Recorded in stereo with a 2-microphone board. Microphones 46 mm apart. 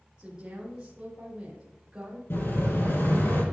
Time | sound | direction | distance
0.2 | a woman speaking | 20° right (ahead or behind) | 3.5 m
2.3 | an explosion | 65° left (ahead or behind) | 4 m